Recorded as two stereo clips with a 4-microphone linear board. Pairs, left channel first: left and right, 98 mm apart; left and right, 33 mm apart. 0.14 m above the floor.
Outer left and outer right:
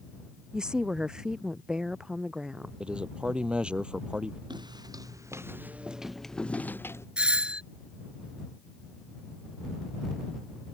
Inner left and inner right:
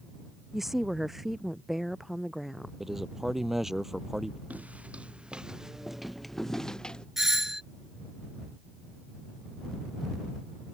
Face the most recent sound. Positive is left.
turn(degrees=-10)  # may be behind; listen again after turning